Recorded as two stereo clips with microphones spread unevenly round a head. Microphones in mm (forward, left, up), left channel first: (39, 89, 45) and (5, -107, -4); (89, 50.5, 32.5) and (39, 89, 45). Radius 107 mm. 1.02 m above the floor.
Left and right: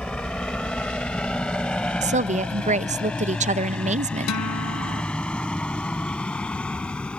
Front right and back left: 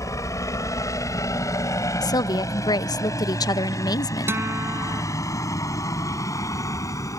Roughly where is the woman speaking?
Ahead right.